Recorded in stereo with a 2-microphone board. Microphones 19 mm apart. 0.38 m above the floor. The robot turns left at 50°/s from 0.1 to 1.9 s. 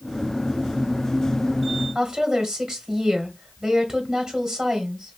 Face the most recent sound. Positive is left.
turn(degrees=-30)  # may be behind; listen again after turning